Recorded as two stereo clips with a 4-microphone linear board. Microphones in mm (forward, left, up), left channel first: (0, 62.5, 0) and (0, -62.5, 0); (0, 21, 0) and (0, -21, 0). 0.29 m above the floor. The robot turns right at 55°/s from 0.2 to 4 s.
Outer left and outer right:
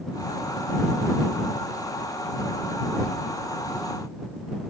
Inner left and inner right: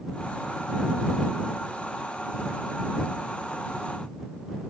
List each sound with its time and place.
Only background noise.